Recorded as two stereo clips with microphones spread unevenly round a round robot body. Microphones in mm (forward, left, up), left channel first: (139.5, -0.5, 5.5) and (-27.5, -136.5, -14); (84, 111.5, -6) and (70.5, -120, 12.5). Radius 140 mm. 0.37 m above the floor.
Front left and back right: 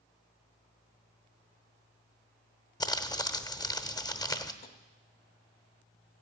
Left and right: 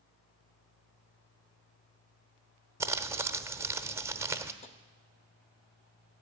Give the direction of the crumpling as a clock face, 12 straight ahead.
1 o'clock.